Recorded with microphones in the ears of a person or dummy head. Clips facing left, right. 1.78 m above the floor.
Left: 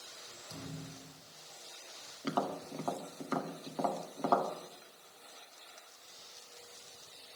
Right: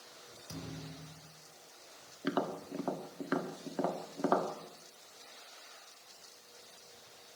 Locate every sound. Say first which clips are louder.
0.5 s a thud: right 1 dB; 70° right (ahead or behind), 5.5 m
2.2 s tapping: right 1 dB; 15° right (ahead or behind), 1.6 m